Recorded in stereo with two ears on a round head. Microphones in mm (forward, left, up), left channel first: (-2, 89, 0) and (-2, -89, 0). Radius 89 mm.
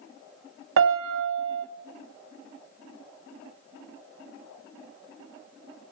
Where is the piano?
65° right (ahead or behind), 0.6 m.